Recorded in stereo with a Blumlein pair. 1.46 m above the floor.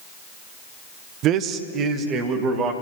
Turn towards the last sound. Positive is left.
turn(degrees=-25)